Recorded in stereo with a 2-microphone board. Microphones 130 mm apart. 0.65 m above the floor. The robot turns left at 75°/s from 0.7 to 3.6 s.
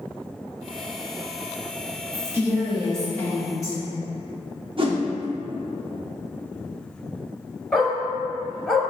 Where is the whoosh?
45° right (ahead or behind), 0.5 m.